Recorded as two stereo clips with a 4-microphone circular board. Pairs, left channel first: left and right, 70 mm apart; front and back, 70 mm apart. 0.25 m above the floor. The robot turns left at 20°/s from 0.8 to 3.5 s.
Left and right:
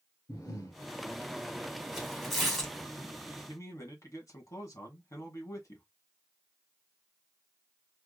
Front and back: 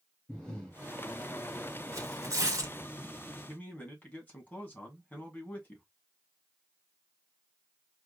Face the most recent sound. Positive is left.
turn(degrees=65)